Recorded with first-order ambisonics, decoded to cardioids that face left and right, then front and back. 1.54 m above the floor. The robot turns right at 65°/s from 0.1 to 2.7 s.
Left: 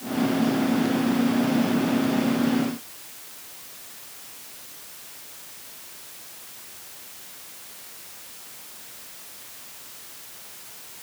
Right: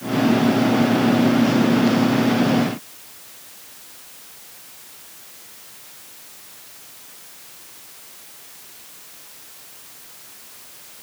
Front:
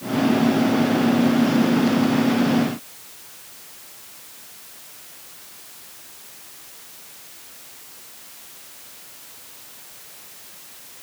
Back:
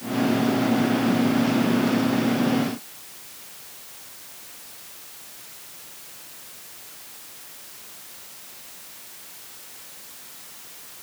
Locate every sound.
Only background noise.